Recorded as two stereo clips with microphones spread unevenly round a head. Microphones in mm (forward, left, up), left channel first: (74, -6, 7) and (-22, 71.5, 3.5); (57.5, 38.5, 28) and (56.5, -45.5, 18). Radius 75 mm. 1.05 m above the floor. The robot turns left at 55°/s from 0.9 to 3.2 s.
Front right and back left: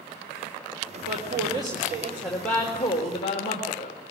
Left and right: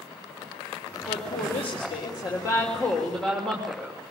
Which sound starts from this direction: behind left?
A woman speaking, at 1.0 s.